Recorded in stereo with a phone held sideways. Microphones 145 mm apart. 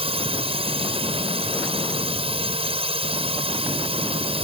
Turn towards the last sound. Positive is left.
turn(degrees=-45)  # may be behind; listen again after turning